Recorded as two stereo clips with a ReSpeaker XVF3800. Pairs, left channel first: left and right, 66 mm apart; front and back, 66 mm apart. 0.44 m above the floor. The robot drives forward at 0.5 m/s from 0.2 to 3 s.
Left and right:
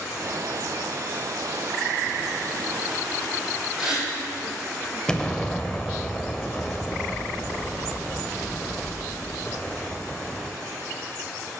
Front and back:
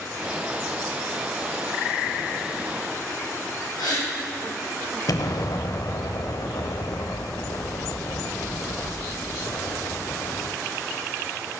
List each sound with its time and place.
3.8 s a gasp: 5° right, 4 m
5.1 s an explosion: 10° left, 0.7 m